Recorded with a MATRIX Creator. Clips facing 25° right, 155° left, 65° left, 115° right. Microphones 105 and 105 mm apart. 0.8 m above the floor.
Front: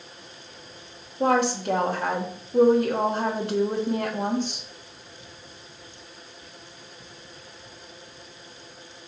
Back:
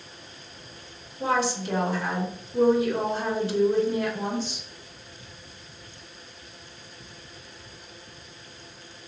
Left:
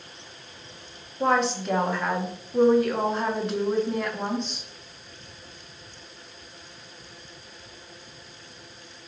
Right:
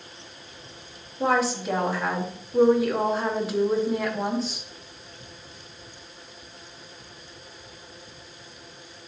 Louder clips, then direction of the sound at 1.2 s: Front 4 dB, even; 30° right.